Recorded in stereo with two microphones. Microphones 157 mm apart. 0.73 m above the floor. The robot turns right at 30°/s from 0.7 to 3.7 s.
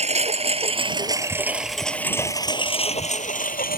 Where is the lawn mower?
45° right (ahead or behind); by 3.8 s 70° left (ahead or behind).